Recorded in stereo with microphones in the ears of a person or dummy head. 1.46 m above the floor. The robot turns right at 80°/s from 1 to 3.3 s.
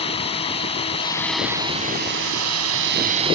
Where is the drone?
150° left; by 3.4 s 25° right.